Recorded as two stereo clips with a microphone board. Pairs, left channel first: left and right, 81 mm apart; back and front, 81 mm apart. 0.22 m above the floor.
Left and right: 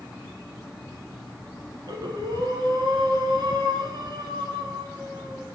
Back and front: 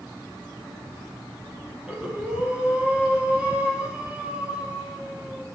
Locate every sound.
1.9 s breathing: 75° right, 1.8 m